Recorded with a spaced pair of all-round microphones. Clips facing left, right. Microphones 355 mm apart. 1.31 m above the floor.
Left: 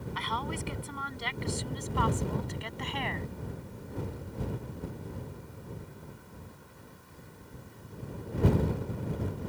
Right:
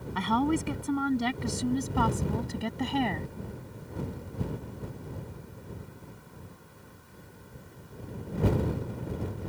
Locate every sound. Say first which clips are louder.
0.1 s a woman speaking: right 14 dB; 60° right (ahead or behind); by 3.3 s 50° right (ahead or behind)